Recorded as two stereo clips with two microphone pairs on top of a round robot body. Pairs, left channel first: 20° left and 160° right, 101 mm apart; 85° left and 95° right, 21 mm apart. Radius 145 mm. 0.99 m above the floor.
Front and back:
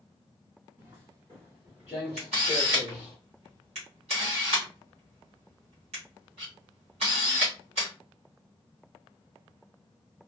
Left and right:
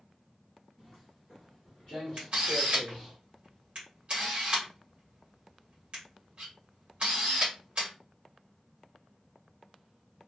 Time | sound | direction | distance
0.8 | footsteps | 155° left | 1.5 m
2.2 | a camera shutter | 145° right | 1.2 m